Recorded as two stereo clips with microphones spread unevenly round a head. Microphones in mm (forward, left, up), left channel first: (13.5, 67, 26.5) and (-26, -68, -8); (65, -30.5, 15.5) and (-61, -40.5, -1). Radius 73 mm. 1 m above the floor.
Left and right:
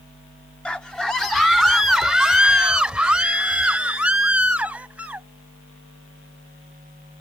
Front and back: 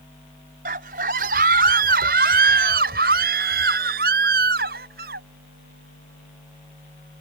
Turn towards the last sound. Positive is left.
turn(degrees=170)